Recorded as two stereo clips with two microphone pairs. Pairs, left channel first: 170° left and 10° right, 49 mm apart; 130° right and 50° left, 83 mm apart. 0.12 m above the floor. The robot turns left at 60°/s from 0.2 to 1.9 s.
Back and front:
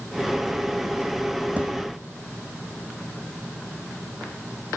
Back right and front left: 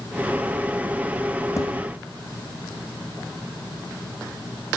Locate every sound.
1.6 s a thud: 70° right, 3 m; by 1.7 s 80° right, 3 m